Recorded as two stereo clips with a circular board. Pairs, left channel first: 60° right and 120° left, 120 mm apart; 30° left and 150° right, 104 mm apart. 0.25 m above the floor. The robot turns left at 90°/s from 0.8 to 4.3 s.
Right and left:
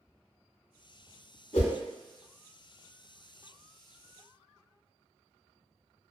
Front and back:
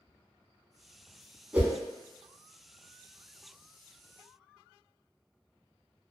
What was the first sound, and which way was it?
A whoosh, 70° right.